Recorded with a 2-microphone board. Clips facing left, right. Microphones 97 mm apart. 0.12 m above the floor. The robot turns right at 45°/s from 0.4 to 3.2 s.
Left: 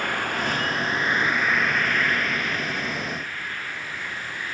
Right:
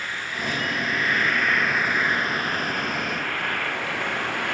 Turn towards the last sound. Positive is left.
turn(degrees=-110)